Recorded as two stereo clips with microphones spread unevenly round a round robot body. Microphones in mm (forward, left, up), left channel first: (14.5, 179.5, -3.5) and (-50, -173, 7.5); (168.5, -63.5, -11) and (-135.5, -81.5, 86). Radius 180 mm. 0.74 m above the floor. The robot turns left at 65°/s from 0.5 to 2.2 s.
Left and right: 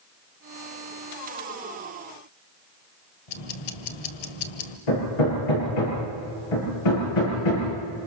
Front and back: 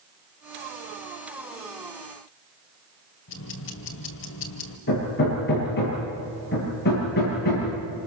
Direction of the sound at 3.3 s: 60° left.